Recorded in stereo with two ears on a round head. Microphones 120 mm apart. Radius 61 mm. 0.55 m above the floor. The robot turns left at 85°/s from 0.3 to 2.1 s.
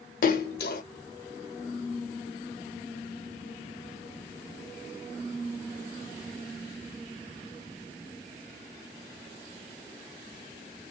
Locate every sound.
0.2 s a splash: 75° left (ahead or behind), 0.6 m; by 0.8 s 60° left (ahead or behind), 0.6 m